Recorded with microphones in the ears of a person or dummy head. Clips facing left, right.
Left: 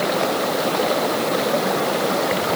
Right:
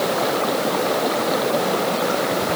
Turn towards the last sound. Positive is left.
No sound to turn to.